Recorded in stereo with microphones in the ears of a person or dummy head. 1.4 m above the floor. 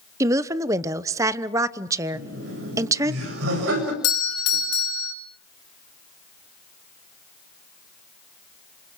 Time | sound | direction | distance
0.2 | a woman speaking | 15° right (ahead or behind) | 1.0 m
2.1 | laughter | 80° right | 7 m
4.0 | a doorbell | 75° left (ahead or behind) | 3 m